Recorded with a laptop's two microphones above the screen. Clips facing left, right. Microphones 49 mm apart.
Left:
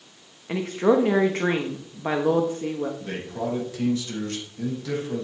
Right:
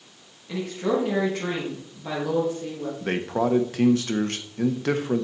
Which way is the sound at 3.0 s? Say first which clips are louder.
Right 6 dB; 55° right (ahead or behind).